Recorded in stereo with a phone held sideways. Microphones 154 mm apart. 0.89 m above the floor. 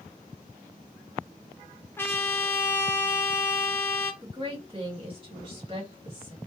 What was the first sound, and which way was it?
A trumpet, 15° left (ahead or behind).